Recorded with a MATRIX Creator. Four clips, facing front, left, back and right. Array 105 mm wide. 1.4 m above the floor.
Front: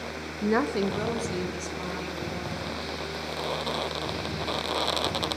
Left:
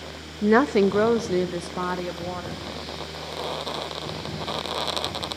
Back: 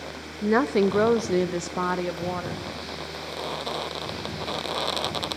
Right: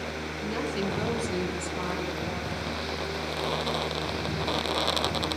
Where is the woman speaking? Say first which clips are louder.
Left 13 dB, back 4 dB; 95° left, 0.5 m; by 2.6 s 155° left, 1.8 m.